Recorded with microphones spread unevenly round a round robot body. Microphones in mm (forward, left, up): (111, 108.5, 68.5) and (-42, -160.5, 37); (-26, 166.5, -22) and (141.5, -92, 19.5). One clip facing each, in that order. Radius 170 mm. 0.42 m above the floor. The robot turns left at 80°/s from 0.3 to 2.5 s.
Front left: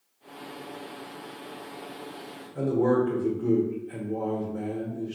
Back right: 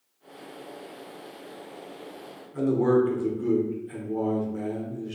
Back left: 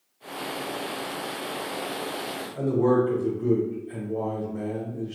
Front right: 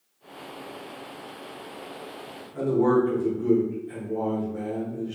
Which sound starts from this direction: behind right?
A man speaking, at 2.5 s.